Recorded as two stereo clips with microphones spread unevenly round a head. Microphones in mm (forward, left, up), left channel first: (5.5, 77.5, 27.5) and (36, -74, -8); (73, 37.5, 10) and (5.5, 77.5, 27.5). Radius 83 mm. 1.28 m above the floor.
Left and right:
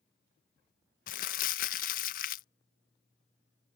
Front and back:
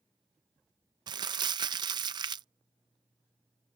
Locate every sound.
1.1 s crumpling: 135° left